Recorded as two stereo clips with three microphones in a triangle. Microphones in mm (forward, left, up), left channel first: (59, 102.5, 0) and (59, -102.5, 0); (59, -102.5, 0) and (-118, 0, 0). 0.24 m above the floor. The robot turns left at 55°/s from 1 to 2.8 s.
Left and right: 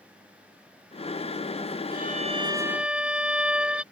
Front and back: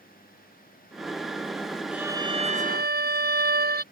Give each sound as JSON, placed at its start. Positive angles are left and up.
{"t": 1.9, "sound": "a violin", "azimuth_deg": -125}